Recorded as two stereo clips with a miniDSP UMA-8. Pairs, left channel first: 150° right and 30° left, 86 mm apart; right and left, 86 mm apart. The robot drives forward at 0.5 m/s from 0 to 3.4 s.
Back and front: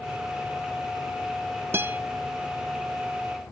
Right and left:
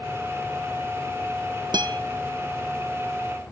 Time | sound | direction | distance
1.7 | a guitar | 85° left | 0.7 m